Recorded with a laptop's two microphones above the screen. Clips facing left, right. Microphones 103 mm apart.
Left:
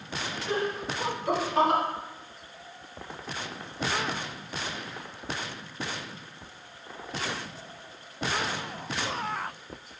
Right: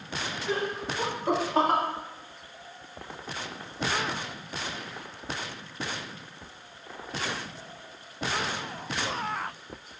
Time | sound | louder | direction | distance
0.5 | laughter | left 1 dB | 15° right (ahead or behind) | 2 m